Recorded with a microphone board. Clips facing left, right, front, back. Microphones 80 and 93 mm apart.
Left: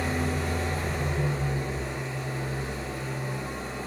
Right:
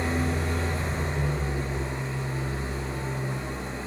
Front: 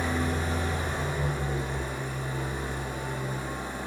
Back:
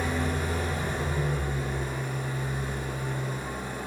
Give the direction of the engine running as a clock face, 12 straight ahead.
1 o'clock.